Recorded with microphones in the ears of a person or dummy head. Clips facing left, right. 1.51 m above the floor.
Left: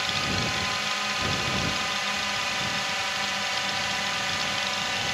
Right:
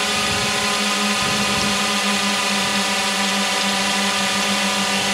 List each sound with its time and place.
0.0 s a drone: 55° right (ahead or behind)